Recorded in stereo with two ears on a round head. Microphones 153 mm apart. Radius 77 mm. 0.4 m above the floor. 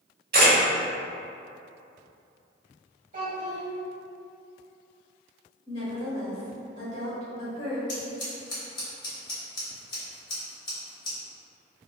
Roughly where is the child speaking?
Right.